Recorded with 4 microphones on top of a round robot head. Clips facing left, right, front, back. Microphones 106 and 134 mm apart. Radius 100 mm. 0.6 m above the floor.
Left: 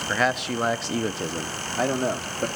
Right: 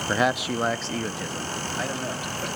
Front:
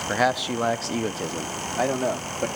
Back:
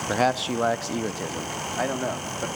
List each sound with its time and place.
0.1 s a man speaking: 120° right, 0.7 m; by 2.5 s 65° left, 1.3 m